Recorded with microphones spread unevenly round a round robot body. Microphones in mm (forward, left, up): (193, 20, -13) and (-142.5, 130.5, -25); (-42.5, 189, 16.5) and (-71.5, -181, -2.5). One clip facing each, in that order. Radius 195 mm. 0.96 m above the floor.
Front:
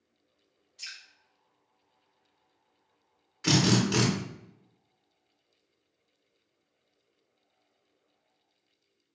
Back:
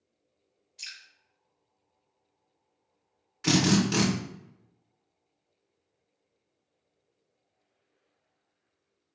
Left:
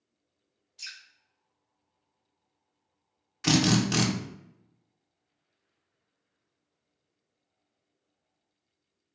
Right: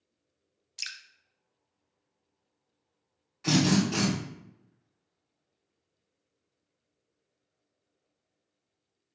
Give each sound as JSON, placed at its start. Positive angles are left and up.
{"t": 0.8, "sound": "dripping", "azimuth_deg": -115, "distance_m": 0.6}
{"t": 3.4, "sound": "a drill", "azimuth_deg": 80, "distance_m": 0.6}